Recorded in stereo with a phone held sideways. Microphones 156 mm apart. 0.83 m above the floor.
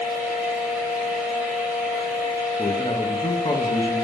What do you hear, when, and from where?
0.0 s a fan: 10° right (ahead or behind), 1.1 m
2.6 s a man speaking: 30° left (ahead or behind), 0.5 m